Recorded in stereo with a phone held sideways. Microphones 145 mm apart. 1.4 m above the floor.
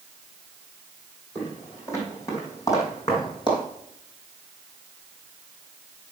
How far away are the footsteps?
About 4 m.